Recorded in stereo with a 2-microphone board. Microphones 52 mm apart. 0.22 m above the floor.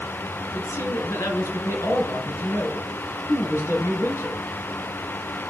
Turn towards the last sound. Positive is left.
turn(degrees=65)  # may be behind; listen again after turning